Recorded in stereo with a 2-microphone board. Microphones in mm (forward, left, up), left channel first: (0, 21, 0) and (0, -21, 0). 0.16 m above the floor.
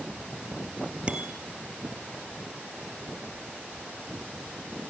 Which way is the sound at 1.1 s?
25° right (ahead or behind).